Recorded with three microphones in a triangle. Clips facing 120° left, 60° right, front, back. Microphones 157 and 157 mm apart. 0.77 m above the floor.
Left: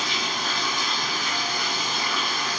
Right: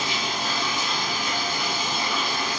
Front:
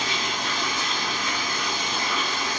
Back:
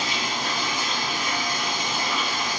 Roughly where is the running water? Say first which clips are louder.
Right 1 dB, back 1 dB; behind right.